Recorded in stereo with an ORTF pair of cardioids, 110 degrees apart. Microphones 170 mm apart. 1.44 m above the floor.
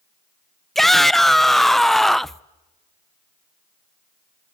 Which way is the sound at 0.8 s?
Straight ahead.